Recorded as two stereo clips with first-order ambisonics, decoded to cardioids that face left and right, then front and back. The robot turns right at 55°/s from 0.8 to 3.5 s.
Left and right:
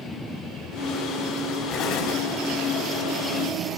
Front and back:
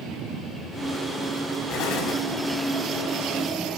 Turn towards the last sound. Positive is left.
turn(degrees=140)